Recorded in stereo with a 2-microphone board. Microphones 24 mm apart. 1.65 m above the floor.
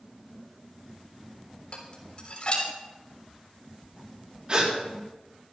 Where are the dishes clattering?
45° left (ahead or behind), 3.5 m.